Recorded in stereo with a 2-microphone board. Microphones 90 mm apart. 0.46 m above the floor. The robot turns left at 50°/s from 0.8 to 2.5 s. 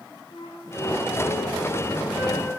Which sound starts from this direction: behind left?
A flute, at 0.3 s.